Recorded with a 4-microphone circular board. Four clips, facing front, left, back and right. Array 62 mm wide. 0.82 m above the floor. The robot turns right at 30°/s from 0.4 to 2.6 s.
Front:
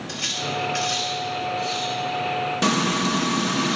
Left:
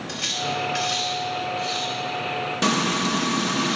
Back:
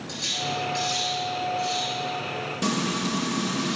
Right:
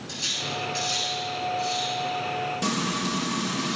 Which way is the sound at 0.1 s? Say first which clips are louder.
Left 5 dB, front 1 dB; 50° left.